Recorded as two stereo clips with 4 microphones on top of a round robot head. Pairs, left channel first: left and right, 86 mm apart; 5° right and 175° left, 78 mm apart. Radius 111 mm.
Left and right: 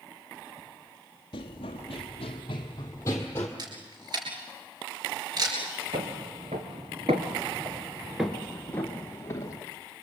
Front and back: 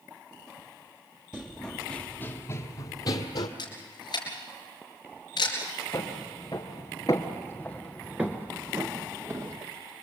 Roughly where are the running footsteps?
Left.